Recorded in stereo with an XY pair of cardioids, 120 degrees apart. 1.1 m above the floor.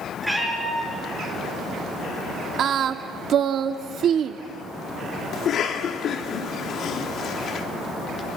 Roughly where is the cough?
Ahead left.